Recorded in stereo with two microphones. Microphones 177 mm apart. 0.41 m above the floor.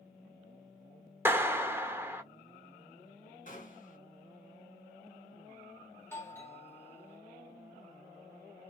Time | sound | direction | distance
1.2 | a clap | 15° right (ahead or behind) | 0.7 m
3.5 | a gunshot | 50° left (ahead or behind) | 1.9 m
6.0 | a doorbell | 15° left (ahead or behind) | 1.3 m